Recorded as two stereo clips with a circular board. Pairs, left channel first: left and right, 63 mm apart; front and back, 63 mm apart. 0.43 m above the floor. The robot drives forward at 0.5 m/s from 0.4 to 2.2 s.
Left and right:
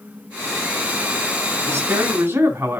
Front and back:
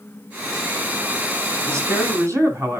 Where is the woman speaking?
140° right, 3.5 m; by 2.8 s 145° right, 3.5 m.